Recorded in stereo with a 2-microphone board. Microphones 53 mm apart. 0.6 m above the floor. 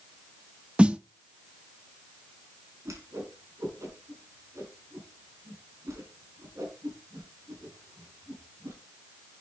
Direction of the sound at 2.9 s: 85° right.